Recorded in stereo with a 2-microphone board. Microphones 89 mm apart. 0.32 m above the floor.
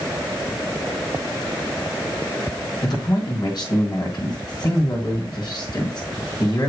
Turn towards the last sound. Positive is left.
turn(degrees=50)  # may be behind; listen again after turning